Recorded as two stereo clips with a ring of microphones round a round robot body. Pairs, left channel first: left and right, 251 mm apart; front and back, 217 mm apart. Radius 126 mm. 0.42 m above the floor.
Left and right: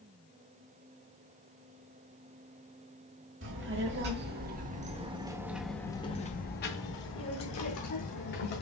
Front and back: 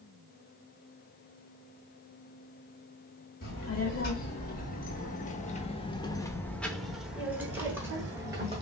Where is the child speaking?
50° right, 1.5 m; by 8.6 s 105° left, 1.6 m.